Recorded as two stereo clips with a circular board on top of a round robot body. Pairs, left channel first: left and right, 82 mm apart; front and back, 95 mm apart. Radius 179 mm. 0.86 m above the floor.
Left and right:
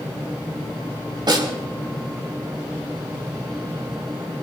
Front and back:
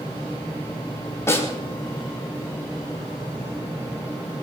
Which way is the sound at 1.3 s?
60° right.